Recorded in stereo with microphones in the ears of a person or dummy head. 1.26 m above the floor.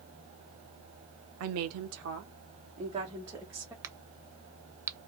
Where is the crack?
20° right (ahead or behind), 0.6 m.